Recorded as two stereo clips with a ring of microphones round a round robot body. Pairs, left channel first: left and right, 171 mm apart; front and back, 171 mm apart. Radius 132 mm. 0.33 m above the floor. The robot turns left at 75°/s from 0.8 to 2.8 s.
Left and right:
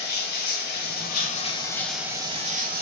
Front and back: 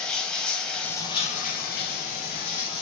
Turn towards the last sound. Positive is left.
turn(degrees=-65)